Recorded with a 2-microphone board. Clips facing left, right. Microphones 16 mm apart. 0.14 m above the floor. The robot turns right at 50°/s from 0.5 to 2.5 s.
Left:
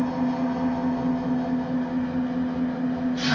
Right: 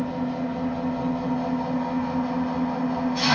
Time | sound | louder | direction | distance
0.0 | an engine running | left 3 dB | 160° left | 1.5 m